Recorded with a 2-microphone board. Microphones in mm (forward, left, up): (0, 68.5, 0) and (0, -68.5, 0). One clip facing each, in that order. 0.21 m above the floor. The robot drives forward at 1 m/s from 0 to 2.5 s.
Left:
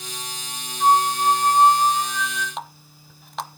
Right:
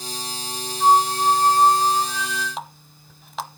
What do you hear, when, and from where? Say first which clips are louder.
0.8 s a flute: right 1 dB; 5° right (ahead or behind), 3 m; by 2.5 s centre (ahead or behind), 4.5 m
2.6 s a running tap: even; centre (ahead or behind), 0.7 m